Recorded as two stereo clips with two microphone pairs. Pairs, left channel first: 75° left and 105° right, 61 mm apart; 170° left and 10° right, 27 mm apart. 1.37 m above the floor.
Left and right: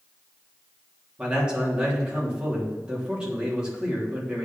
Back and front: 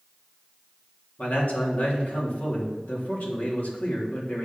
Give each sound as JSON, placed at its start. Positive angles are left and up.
{"t": 1.2, "sound": "a man speaking", "azimuth_deg": 180, "distance_m": 3.0}